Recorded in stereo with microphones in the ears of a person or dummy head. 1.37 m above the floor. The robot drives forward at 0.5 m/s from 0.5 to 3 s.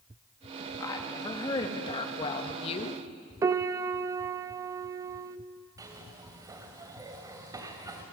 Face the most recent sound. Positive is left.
turn(degrees=-25)  # may be behind; listen again after turning